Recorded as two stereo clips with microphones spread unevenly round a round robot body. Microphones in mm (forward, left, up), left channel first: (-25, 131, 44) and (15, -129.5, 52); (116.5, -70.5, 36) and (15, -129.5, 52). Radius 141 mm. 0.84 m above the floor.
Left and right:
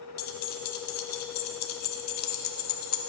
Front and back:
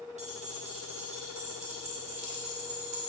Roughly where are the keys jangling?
Behind left.